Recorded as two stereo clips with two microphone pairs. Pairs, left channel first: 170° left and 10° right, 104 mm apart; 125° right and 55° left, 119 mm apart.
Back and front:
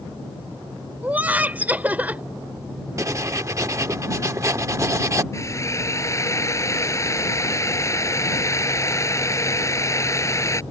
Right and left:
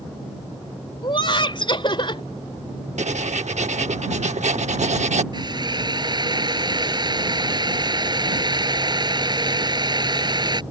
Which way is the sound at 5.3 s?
110° left.